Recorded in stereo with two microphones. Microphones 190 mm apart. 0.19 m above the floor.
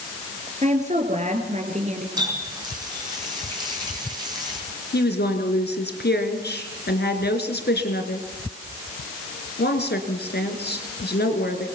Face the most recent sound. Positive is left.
turn(degrees=60)  # may be behind; listen again after turning